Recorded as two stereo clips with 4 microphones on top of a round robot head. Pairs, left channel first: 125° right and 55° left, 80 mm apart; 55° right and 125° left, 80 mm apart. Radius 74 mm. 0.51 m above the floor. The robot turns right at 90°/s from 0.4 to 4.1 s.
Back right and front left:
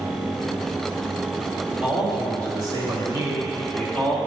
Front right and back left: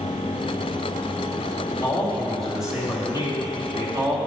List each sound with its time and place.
1.8 s a man speaking: 30° right, 1.9 m; by 4.2 s straight behind, 1.9 m